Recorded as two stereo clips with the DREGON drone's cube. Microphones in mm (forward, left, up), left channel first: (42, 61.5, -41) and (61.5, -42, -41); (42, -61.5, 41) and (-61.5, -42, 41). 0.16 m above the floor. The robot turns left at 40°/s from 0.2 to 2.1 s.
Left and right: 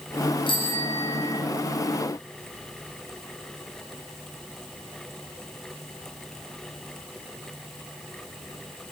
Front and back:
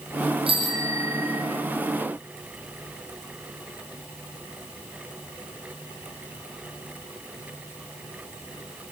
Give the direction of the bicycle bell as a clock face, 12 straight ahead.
7 o'clock.